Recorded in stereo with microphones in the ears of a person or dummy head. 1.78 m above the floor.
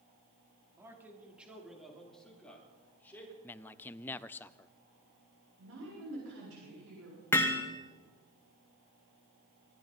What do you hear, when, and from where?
0.8 s a man speaking: 10° right (ahead or behind), 3 m; by 3.3 s 20° left (ahead or behind), 4.5 m
3.4 s a man speaking: 15° left (ahead or behind), 0.5 m
5.6 s a woman speaking: 80° right, 7 m
7.3 s hammering: 10° left (ahead or behind), 1.2 m